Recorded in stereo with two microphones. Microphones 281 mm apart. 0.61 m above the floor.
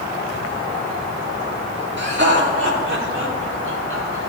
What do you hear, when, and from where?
2.0 s laughter: 40° right (ahead or behind), 1.6 m; by 4.2 s 50° right (ahead or behind), 3 m